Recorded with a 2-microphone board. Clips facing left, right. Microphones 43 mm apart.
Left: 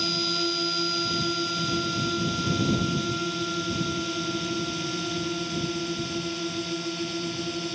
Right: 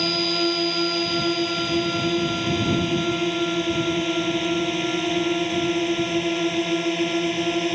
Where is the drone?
35° right (ahead or behind); by 7.8 s 45° right (ahead or behind).